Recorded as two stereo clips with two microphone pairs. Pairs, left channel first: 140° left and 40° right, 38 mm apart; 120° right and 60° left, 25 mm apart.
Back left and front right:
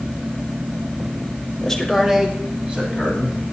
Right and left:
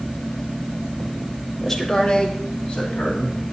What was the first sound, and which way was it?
A man speaking, straight behind.